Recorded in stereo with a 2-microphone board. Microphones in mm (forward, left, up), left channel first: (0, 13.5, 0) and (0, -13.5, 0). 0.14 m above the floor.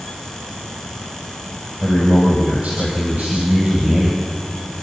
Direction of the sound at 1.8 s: 40° right (ahead or behind).